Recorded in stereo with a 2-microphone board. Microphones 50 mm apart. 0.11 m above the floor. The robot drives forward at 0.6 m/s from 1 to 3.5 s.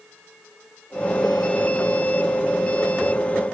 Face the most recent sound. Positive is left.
No sound to turn to.